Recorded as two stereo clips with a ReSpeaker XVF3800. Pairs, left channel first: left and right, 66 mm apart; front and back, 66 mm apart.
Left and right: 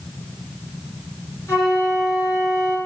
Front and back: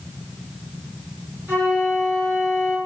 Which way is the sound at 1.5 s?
125° left.